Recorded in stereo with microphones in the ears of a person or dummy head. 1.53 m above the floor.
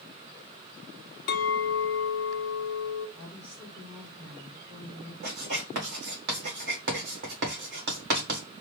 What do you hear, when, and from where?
1.3 s a clink: 50° left (ahead or behind), 0.9 m
3.2 s a woman speaking: 35° right (ahead or behind), 3 m
5.2 s writing: 55° right (ahead or behind), 1.5 m